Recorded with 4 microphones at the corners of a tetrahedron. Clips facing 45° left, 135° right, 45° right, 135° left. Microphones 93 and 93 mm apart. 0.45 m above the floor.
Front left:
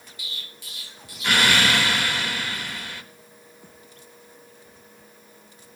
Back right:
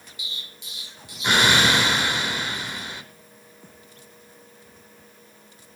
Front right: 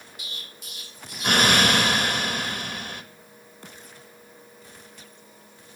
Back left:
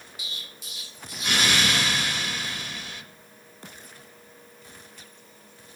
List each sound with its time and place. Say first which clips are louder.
0.2 s an explosion: even, even; 70° right, 1.0 m